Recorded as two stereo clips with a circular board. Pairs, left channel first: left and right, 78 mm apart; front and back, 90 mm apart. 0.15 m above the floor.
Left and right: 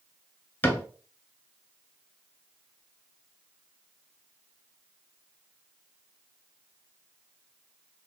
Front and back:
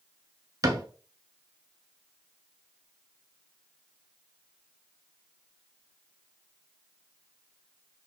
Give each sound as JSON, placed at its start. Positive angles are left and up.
{"t": 0.6, "sound": "a cupboard door", "azimuth_deg": 145, "distance_m": 0.6}